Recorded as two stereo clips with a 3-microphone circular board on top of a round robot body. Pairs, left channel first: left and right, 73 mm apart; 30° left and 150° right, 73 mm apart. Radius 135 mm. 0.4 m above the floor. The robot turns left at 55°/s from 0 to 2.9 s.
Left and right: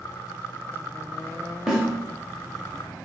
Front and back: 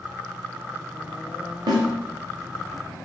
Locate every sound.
1.7 s a snare drum: 170° right, 0.6 m; by 1.9 s 175° left, 0.6 m